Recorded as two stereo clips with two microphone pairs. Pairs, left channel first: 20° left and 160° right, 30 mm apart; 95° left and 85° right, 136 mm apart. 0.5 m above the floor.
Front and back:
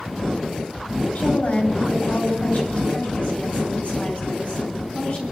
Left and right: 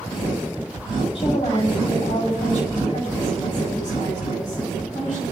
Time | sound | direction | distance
1.1 | a woman speaking | 50° left | 3.5 m